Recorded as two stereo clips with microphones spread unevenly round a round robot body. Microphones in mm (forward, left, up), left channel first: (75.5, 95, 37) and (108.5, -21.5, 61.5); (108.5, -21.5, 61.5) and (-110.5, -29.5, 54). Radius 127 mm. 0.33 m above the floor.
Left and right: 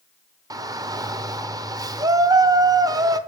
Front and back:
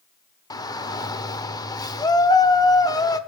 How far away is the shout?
About 1.1 m.